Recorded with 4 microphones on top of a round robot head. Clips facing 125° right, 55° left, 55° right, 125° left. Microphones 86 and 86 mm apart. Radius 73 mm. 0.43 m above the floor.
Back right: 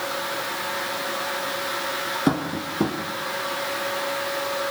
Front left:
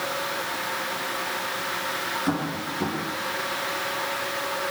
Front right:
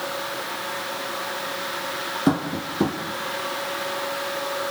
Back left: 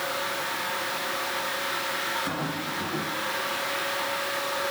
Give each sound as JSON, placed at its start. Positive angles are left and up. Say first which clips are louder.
{"t": 2.3, "sound": "tapping", "louder": "back right 5 dB, front right 7 dB", "azimuth_deg": -80, "distance_m": 5.5}